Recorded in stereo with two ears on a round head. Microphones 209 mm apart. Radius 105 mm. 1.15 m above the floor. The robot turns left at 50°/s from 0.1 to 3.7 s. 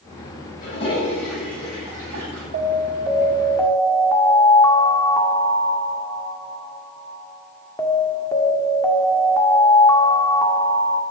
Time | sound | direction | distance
0.6 | a toilet flushing | 35° left | 7 m
2.5 | an alarm | 135° right | 1.9 m